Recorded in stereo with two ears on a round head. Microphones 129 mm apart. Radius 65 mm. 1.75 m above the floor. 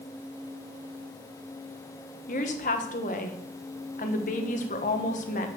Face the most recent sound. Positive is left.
turn(degrees=55)  # may be behind; listen again after turning